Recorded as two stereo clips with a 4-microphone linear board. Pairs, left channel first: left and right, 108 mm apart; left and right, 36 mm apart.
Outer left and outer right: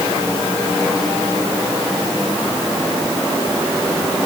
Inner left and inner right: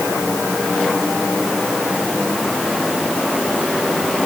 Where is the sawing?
No sawing in this recording.